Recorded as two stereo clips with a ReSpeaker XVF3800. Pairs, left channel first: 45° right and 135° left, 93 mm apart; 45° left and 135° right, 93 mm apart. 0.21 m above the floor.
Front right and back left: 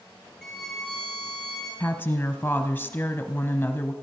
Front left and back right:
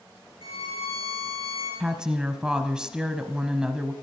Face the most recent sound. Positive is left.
turn(degrees=-65)